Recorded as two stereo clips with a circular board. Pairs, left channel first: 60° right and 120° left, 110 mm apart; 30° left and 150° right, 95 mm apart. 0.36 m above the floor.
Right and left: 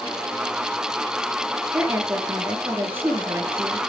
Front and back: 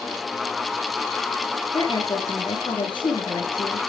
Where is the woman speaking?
50° left, 6 m.